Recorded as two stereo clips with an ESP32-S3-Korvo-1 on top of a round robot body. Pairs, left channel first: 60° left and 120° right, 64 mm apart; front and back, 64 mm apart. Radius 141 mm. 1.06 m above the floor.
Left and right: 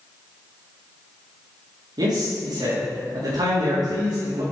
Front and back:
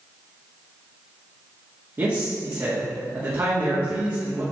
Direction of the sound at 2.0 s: 130° right.